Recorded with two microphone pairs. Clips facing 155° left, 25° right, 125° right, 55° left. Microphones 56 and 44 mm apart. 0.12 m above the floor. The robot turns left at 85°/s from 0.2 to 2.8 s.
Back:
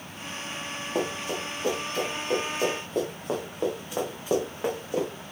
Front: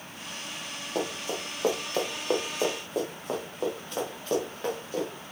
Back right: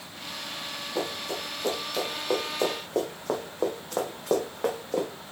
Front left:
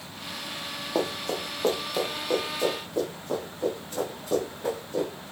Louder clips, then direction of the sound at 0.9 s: Back 2 dB, front left 4 dB; 70° left.